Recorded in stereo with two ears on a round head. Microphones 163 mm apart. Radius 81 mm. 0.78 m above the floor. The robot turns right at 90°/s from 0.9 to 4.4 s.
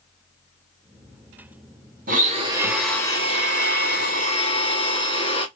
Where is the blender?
70° right, 1.1 m; by 5.5 s 140° left, 1.1 m.